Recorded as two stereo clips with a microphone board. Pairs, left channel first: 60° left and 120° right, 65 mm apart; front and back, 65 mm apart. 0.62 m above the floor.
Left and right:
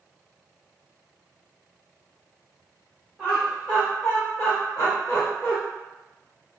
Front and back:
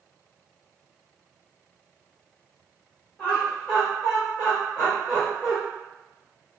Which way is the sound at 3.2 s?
40° right.